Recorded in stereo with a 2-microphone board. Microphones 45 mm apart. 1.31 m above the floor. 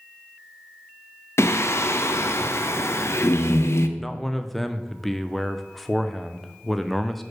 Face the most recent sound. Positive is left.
turn(degrees=5)  # may be behind; listen again after turning